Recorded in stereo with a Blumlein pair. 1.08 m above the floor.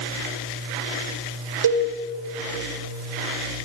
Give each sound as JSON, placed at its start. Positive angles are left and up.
{"t": 1.6, "sound": "a cowbell", "azimuth_deg": -65, "distance_m": 1.3}